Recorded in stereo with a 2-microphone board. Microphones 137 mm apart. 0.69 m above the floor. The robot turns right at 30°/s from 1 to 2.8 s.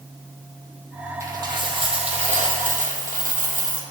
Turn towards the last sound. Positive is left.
turn(degrees=-110)